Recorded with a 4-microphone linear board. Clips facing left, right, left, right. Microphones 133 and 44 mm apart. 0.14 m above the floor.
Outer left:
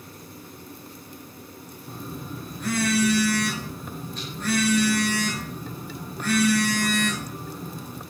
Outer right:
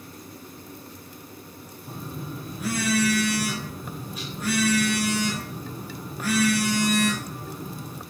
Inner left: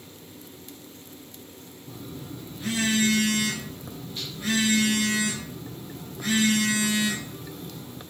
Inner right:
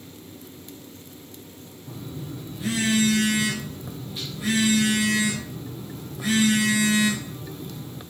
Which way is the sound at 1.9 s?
10° right (ahead or behind).